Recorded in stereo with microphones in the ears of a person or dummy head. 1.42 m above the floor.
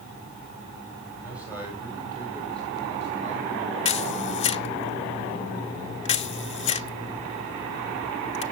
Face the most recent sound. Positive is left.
turn(degrees=30)  # may be behind; listen again after turning